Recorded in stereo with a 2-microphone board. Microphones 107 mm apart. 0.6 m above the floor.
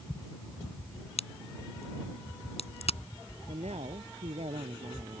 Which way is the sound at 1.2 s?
75° left (ahead or behind).